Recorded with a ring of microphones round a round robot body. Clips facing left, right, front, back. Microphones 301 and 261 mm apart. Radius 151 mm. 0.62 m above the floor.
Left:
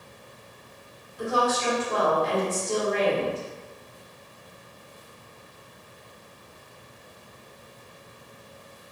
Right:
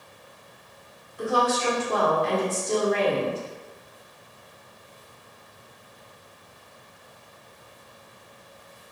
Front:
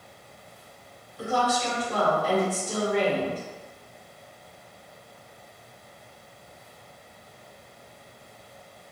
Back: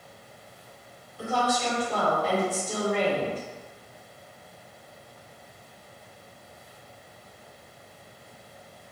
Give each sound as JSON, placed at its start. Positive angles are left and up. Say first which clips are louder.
{"t": 1.2, "sound": "a woman speaking", "louder": "right 1 dB, front 1 dB", "azimuth_deg": -80, "distance_m": 1.6}